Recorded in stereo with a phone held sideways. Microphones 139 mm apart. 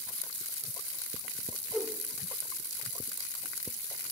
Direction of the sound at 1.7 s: 5° right (ahead or behind).